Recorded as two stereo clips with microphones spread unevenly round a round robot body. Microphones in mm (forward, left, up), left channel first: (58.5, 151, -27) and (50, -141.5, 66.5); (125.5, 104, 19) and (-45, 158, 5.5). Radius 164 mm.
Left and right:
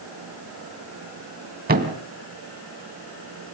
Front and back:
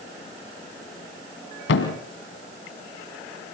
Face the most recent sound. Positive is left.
turn(degrees=-35)